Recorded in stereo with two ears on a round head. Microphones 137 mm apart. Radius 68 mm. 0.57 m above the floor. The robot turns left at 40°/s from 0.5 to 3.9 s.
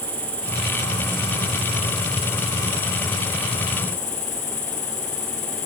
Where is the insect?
170° right, 9 m; by 5.7 s 55° left, 9 m.